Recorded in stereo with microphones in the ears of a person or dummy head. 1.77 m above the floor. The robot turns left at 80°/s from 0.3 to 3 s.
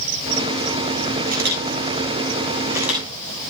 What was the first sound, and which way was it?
A camera shutter, 40° right (ahead or behind).